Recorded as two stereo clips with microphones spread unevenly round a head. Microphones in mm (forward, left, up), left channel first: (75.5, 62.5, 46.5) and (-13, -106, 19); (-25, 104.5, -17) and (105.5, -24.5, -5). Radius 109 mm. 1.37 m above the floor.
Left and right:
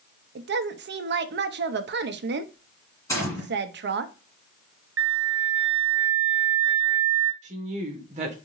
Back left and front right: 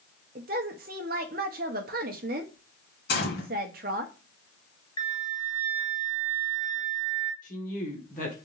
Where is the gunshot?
130° left, 2.0 m.